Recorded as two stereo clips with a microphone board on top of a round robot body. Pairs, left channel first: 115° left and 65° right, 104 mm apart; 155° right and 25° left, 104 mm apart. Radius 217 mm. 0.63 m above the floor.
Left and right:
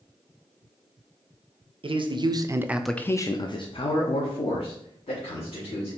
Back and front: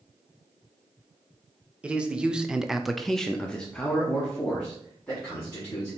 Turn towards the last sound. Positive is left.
turn(degrees=125)